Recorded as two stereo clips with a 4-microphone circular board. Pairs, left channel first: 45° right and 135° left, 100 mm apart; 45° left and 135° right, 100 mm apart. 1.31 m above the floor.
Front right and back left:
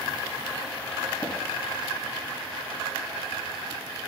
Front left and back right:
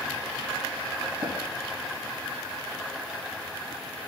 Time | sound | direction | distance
1.2 | tapping | 110° right | 3.5 m